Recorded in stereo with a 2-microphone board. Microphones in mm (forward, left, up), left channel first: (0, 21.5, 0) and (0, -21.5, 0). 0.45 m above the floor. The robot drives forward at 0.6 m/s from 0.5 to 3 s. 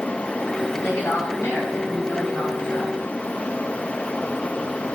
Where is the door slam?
No door slam in this recording.